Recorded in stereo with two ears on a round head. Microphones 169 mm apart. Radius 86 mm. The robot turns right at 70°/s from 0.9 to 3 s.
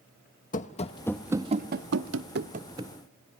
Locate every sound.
0.5 s running footsteps: 40° left (ahead or behind), 1.0 m; by 2.9 s 5° right (ahead or behind), 1.4 m